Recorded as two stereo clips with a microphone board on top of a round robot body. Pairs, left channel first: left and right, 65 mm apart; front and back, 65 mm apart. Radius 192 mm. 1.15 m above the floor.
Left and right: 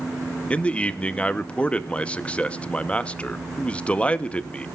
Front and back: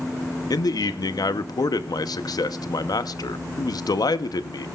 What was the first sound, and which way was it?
A man speaking, 20° left.